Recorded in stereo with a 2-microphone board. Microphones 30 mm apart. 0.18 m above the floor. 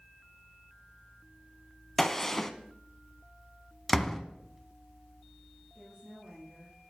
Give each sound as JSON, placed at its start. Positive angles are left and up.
{"t": 2.0, "sound": "a gunshot", "side_deg": 10, "distance_m": 0.7}
{"t": 3.9, "sound": "a door slam", "side_deg": 10, "distance_m": 0.9}
{"t": 5.8, "sound": "a woman speaking", "side_deg": -15, "distance_m": 4.0}